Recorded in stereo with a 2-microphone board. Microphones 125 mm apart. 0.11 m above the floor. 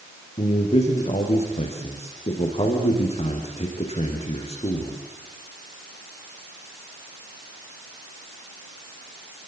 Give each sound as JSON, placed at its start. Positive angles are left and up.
{"t": 0.4, "sound": "a man speaking", "side_deg": 60, "distance_m": 6.0}